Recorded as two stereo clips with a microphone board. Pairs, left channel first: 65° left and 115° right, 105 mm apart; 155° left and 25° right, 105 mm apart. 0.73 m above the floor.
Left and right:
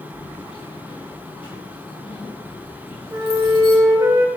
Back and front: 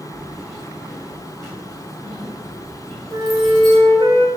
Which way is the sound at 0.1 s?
30° left.